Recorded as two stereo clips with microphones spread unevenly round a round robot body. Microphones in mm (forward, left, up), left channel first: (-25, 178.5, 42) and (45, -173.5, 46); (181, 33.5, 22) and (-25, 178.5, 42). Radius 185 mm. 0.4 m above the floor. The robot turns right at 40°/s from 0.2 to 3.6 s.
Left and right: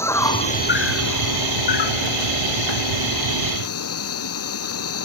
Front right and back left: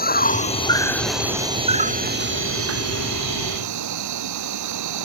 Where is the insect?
20° left; by 5.1 s 155° left.